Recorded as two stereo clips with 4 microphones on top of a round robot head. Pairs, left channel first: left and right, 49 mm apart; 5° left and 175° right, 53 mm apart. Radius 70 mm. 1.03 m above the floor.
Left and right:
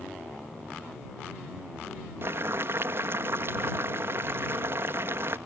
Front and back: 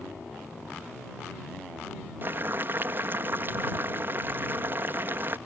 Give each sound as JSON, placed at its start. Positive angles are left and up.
{"t": 2.2, "sound": "boiling", "azimuth_deg": -130}